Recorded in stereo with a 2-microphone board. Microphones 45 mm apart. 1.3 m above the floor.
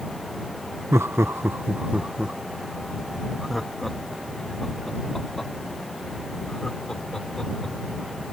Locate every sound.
0.9 s laughter: 75° right (ahead or behind); by 7.8 s 15° left (ahead or behind)